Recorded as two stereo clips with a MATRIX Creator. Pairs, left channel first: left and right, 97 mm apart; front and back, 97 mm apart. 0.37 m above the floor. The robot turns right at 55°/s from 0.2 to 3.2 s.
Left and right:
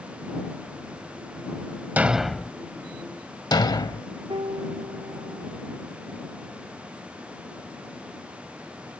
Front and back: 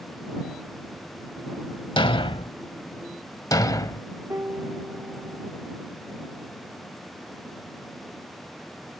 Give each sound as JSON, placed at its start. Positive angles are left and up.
{"t": 2.0, "sound": "a thud", "azimuth_deg": -20}
{"t": 4.3, "sound": "a piano", "azimuth_deg": -120}